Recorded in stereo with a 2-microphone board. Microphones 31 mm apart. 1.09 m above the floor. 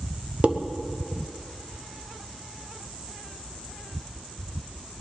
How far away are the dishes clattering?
About 0.8 m.